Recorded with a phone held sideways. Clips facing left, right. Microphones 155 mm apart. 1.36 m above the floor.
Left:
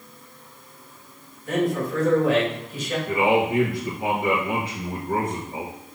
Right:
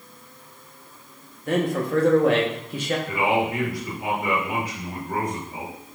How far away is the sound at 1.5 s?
About 1.6 m.